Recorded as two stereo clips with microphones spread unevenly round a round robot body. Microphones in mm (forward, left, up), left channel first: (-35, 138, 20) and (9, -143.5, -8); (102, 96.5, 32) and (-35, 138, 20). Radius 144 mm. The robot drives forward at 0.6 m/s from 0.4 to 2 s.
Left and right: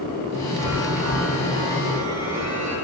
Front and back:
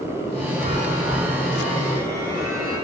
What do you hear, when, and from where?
0.6 s a chime: 110° right, 7.5 m; by 2.7 s 115° right, 8 m